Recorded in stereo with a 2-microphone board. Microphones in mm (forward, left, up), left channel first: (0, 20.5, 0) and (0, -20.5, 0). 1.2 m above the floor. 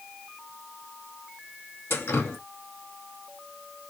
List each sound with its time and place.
1.9 s dripping: 90° left, 1.4 m